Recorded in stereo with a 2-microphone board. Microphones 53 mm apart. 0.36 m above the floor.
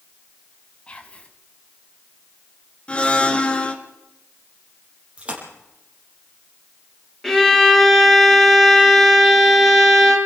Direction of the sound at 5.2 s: 25° right (ahead or behind).